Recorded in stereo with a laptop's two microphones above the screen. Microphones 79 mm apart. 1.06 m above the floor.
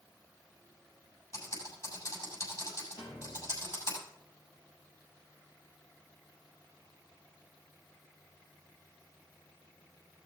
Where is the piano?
70° left (ahead or behind), 4 m.